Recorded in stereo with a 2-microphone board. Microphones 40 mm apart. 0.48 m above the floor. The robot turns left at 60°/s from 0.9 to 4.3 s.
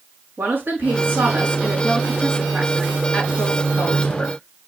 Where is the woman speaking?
75° right, 5 m; by 4.4 s 80° left, 5 m.